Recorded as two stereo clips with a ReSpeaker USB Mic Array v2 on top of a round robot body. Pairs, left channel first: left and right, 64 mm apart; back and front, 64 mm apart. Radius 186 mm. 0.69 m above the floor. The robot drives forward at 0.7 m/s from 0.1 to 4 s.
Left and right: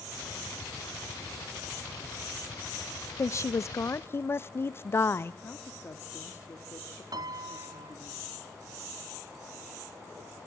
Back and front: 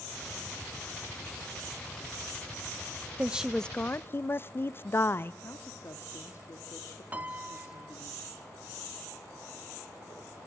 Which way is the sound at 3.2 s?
60° left.